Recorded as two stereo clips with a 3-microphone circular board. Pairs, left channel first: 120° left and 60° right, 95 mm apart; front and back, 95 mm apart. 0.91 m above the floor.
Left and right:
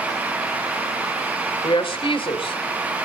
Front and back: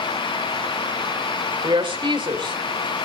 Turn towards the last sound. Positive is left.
turn(degrees=150)